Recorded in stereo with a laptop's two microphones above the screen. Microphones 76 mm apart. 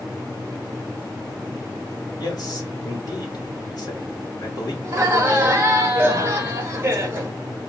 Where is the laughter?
25° right (ahead or behind), 0.9 m.